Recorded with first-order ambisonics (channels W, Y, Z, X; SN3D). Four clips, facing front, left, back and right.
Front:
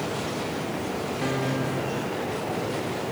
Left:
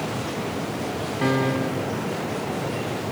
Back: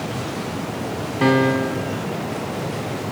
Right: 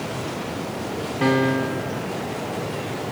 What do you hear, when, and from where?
1.2 s a piano: 165° right, 0.7 m